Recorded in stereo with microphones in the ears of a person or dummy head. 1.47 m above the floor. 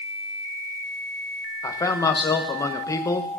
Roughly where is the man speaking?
Centre.